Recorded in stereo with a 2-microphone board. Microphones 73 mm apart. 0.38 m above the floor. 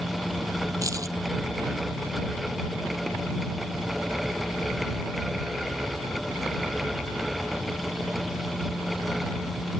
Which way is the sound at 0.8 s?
50° right (ahead or behind).